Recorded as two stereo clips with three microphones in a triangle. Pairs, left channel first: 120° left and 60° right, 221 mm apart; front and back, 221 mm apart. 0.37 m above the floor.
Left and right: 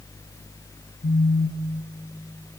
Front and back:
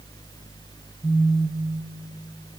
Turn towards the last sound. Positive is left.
turn(degrees=90)